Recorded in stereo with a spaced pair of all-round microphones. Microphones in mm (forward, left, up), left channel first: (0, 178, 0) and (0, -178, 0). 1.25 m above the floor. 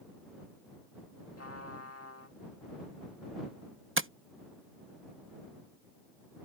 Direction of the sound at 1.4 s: 40° left (ahead or behind).